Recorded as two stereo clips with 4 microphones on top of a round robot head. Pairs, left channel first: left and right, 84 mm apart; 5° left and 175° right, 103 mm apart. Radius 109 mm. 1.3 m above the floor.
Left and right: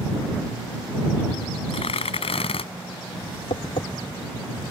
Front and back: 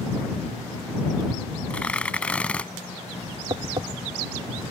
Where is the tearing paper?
85° left.